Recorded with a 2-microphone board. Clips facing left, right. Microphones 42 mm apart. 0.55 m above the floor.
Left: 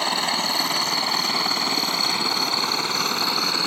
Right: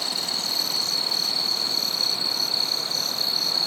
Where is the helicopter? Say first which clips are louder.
Left 7 dB; 50° left (ahead or behind); by 3.7 s 65° left (ahead or behind).